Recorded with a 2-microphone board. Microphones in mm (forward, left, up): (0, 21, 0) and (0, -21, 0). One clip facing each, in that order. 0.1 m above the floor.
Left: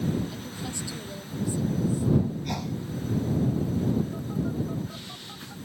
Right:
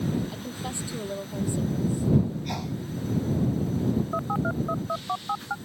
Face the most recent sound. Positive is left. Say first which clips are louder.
# right 3 dB
turn(degrees=-65)  # may be behind; listen again after turning